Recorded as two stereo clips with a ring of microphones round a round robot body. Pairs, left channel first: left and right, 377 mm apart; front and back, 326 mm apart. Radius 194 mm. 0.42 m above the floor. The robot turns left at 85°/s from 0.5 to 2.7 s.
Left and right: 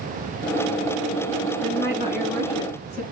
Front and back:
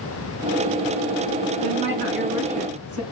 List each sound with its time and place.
1.6 s a woman speaking: 130° right, 5.5 m; by 3.0 s 140° left, 5.5 m